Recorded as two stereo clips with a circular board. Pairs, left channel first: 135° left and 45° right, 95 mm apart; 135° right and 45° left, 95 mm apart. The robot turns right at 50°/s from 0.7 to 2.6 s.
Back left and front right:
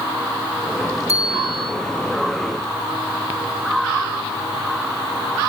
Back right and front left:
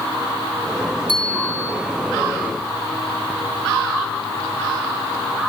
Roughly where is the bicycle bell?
Left.